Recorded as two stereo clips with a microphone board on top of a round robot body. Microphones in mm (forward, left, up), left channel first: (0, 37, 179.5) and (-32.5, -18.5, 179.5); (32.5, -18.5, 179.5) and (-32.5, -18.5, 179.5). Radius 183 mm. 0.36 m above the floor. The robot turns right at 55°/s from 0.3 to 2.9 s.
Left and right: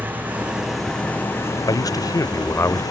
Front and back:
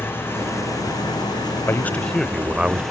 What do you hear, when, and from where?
0.0 s an engine running: 55° right; by 2.9 s 85° left
1.7 s a man speaking: 55° left; by 2.8 s 115° left